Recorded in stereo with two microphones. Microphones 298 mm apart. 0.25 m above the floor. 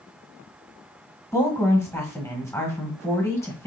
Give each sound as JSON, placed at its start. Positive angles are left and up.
{"t": 1.3, "sound": "a woman speaking", "side_deg": 10, "distance_m": 1.4}